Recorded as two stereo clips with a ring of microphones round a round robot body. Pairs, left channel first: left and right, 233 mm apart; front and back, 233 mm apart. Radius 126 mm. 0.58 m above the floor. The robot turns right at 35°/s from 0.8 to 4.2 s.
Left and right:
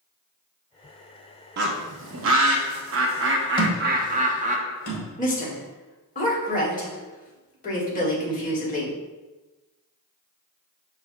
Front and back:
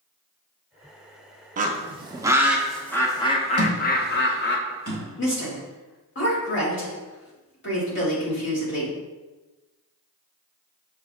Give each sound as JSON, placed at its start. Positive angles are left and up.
{"t": 1.6, "sound": "a bird", "azimuth_deg": -130, "distance_m": 0.6}
{"t": 3.6, "sound": "a thud", "azimuth_deg": 20, "distance_m": 1.6}
{"t": 5.2, "sound": "a woman speaking", "azimuth_deg": 35, "distance_m": 1.7}